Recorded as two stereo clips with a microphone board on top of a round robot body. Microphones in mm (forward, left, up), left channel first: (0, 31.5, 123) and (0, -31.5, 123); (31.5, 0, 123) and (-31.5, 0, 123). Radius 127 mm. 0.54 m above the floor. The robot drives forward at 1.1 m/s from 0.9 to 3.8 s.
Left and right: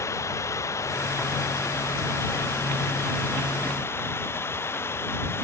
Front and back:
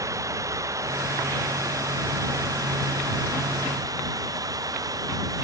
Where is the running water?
140° left; by 5.4 s 145° left.